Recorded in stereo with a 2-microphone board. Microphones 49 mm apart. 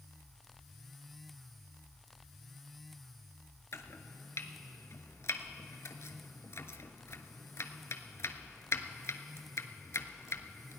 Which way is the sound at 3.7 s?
65° left (ahead or behind).